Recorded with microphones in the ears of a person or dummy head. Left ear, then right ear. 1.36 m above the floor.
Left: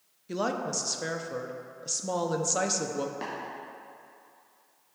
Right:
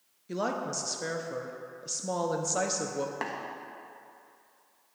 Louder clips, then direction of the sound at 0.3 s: Left 1 dB; 5° left (ahead or behind).